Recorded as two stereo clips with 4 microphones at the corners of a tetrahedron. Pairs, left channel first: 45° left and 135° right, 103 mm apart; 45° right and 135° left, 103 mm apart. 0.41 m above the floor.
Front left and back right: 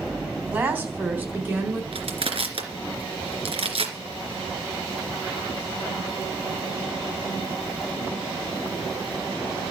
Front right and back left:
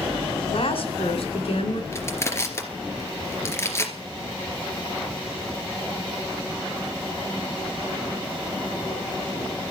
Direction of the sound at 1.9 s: 110° right.